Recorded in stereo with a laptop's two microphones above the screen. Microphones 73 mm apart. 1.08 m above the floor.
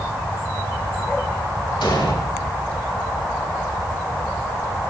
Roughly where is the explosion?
Left.